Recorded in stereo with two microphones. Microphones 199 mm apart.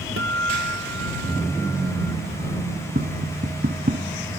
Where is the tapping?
50° right (ahead or behind).